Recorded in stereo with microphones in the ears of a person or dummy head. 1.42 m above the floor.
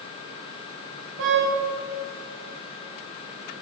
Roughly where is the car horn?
Right.